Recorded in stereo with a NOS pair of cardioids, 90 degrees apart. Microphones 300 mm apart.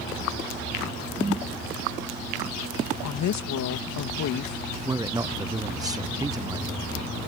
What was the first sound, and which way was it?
A whoosh, 15° right.